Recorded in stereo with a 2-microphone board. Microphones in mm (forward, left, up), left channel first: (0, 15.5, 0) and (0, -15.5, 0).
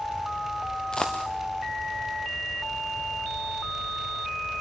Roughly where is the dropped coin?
Left.